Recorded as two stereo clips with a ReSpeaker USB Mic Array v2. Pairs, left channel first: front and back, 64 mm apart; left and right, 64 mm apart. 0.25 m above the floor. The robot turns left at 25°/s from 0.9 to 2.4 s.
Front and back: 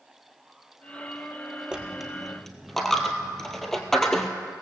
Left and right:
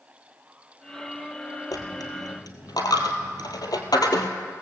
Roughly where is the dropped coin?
Left.